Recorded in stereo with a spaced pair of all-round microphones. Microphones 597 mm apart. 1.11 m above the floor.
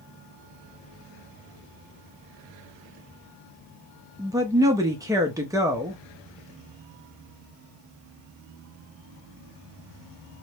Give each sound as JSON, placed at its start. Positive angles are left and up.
{"t": 4.2, "sound": "a woman speaking", "side_deg": -5, "distance_m": 0.7}